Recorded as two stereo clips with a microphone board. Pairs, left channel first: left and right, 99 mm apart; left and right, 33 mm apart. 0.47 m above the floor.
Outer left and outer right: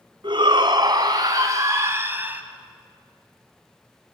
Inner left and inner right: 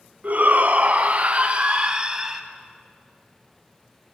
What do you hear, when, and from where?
0.2 s a shout: 50° right (ahead or behind), 3.5 m; by 2.4 s 15° right (ahead or behind), 2.5 m